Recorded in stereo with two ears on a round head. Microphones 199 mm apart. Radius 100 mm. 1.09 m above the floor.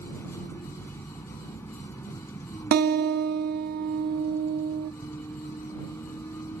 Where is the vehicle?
10° left (ahead or behind).